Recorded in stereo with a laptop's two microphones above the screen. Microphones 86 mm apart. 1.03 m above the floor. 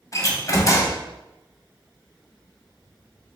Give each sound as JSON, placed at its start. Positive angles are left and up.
{"t": 0.1, "sound": "a door slam", "side_deg": 40, "distance_m": 0.6}